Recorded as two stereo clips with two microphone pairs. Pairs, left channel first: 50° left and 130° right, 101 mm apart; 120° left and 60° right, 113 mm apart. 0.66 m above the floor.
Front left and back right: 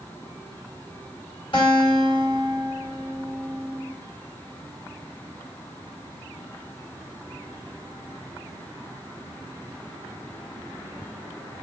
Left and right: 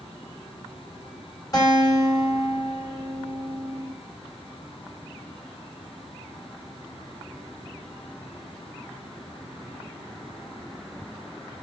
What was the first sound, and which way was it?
A guitar, 70° left.